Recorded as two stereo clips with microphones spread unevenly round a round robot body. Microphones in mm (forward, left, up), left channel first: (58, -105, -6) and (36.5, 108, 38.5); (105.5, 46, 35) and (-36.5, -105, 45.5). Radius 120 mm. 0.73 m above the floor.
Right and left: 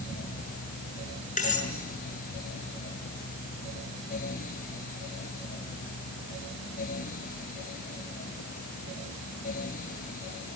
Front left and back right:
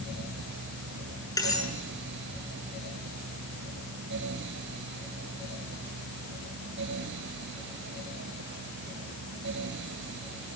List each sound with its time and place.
1.4 s cutlery clinking: 30° right, 7 m